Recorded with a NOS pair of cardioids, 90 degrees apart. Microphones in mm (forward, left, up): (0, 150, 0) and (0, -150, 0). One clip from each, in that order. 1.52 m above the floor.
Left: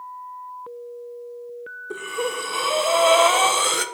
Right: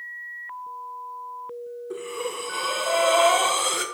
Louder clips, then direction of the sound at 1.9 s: Left 5 dB; 25° left.